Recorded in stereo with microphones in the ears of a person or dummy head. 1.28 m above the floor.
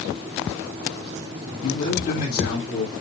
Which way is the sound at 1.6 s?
40° left (ahead or behind).